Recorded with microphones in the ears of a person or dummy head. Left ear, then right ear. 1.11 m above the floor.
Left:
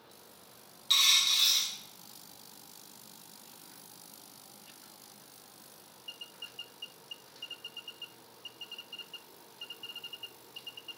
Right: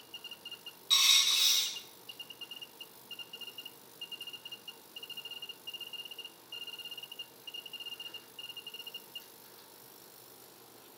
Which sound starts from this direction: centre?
A dropped coin, at 0.9 s.